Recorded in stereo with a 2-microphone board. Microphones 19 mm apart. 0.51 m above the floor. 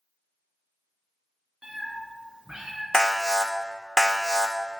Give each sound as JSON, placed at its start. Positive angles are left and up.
{"t": 1.6, "sound": "a cat meowing", "side_deg": -50, "distance_m": 3.0}
{"t": 2.9, "sound": "an alarm", "side_deg": 30, "distance_m": 0.8}